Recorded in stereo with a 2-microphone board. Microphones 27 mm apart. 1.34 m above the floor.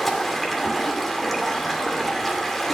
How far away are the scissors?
I don't hear scissors.